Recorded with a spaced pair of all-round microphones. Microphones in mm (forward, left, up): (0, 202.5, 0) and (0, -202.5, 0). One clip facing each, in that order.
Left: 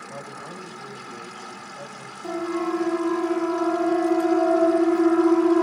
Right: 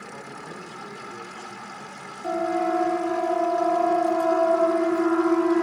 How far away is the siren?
About 4 m.